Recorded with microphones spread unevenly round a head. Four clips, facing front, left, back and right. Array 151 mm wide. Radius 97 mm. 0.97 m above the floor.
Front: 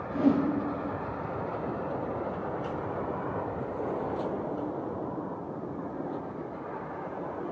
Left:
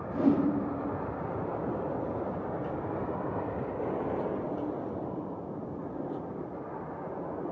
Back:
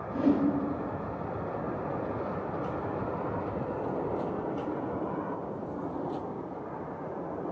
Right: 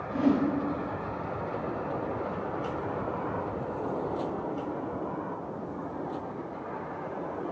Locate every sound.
0.1 s a whoosh: 75° left, 5 m